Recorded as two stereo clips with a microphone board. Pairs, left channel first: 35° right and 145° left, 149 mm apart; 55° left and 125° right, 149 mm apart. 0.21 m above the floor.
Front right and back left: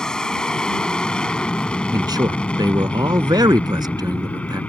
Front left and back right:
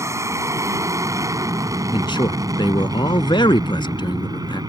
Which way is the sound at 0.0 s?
110° right.